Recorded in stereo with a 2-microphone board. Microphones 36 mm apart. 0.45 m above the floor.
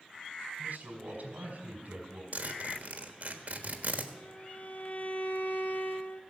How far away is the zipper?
About 1.4 m.